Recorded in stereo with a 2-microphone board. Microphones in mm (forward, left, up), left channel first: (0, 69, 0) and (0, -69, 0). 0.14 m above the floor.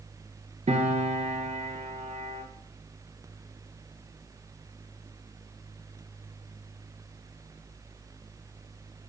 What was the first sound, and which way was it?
A piano, 55° right (ahead or behind).